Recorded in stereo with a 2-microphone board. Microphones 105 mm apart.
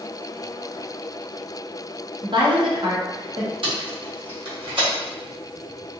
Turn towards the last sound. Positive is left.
turn(degrees=-60)  # may be behind; listen again after turning